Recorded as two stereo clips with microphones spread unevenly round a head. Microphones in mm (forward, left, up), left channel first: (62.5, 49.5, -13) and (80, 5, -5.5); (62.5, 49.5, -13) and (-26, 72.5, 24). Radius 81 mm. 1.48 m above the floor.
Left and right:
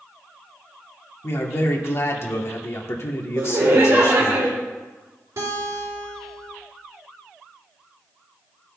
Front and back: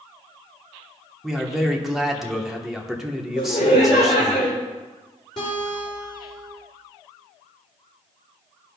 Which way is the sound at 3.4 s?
65° right.